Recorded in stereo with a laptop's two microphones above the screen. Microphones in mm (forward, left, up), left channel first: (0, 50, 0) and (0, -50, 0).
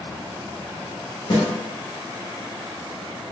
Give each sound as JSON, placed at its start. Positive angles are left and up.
{"t": 1.3, "sound": "a snare drum", "side_deg": 60, "distance_m": 1.3}